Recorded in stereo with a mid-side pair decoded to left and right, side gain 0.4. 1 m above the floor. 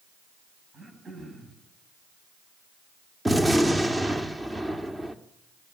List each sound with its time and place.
0.7 s throat clearing: 45° right, 8.5 m
3.2 s a gunshot: 15° right, 1.9 m